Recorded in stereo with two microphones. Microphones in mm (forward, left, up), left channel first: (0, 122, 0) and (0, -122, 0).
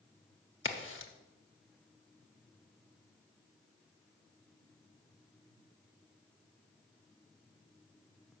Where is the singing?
No singing in this recording.